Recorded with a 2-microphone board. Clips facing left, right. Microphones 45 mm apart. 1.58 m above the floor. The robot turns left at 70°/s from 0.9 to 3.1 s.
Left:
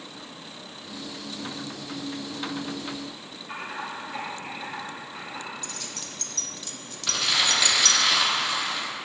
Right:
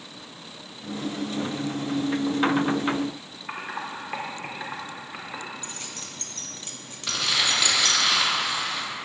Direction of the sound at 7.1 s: Centre (ahead or behind).